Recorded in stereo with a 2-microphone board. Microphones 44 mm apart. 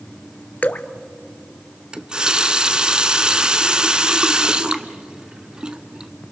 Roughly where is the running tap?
Right.